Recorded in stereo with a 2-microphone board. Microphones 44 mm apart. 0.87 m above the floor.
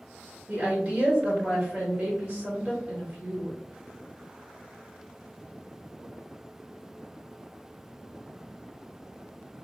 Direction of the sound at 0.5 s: 30° right (ahead or behind).